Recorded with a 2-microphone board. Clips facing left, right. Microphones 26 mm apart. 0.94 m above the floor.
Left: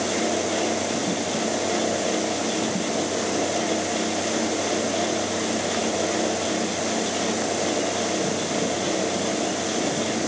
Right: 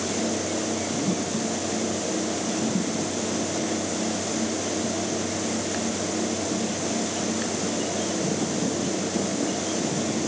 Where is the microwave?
I don't hear a microwave.